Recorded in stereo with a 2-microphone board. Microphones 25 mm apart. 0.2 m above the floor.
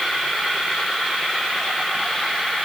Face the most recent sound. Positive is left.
No sound to turn to.